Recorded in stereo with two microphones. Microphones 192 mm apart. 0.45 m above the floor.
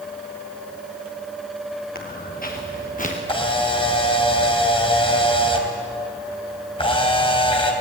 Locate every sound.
1.9 s footsteps: 50° left (ahead or behind), 5 m; by 3.2 s 40° left (ahead or behind), 4.5 m
3.3 s a camera shutter: 30° left (ahead or behind), 3 m